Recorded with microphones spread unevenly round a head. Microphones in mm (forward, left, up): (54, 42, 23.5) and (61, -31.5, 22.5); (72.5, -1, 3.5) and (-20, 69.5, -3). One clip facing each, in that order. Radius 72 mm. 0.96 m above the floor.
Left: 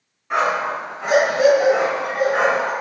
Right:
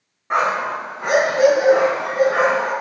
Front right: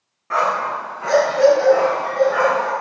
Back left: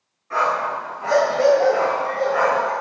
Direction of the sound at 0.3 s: 35° right.